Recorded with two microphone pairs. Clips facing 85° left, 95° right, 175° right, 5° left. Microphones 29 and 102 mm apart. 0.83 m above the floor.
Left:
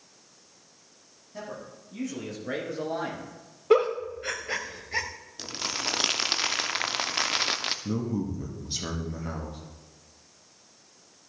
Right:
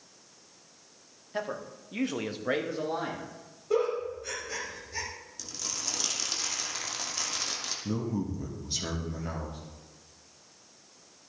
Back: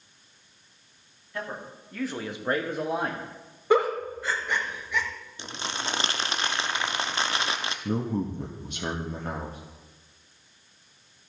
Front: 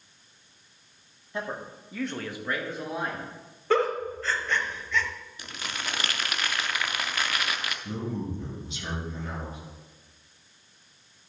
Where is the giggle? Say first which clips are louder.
Left 6 dB, back 2 dB; 110° left, 1.0 m.